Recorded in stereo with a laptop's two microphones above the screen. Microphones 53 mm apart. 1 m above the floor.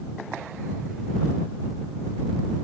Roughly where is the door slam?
I don't hear a door slam.